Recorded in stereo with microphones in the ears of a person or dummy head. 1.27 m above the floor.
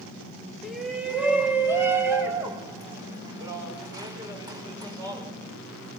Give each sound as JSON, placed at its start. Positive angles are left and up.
{"t": 0.6, "sound": "a shout", "side_deg": 5, "distance_m": 2.5}